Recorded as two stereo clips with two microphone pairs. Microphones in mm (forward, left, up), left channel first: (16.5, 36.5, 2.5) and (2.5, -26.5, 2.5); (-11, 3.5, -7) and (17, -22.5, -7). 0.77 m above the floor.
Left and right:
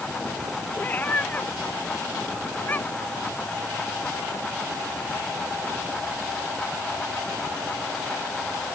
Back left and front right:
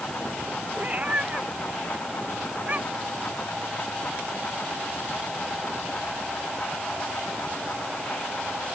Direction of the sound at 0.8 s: 10° left.